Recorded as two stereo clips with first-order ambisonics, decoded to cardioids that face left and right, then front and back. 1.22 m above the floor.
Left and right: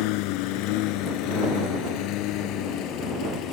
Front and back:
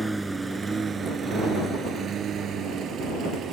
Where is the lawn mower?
95° left; by 3.5 s 130° left.